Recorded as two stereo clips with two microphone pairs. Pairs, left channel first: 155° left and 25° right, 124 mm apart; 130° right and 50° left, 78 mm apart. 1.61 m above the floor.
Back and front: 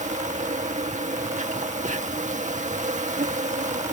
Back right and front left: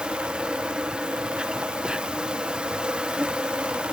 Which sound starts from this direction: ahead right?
An insect, at 0.0 s.